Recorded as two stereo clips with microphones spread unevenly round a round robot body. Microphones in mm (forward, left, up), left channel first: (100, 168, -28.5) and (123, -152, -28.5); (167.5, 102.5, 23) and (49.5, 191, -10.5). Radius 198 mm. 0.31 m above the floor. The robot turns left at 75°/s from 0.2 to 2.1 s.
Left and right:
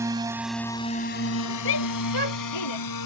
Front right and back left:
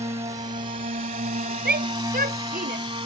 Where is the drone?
165° right; by 3.1 s 95° left.